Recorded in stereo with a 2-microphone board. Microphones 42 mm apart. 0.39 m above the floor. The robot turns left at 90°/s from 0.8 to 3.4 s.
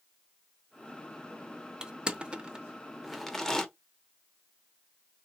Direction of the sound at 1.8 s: 20° right (ahead or behind).